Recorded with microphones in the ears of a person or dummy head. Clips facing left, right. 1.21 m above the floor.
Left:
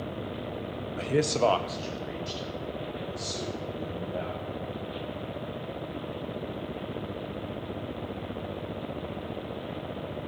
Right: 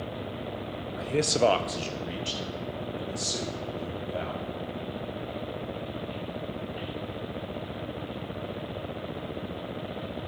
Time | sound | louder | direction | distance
1.0 | a man speaking | even | 40° left (ahead or behind) | 0.5 m